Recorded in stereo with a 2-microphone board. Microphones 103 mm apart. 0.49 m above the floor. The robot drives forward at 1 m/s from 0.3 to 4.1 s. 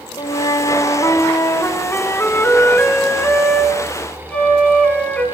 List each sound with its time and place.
0.2 s a flute: 45° left (ahead or behind), 1.1 m; by 5.2 s 10° left (ahead or behind), 4 m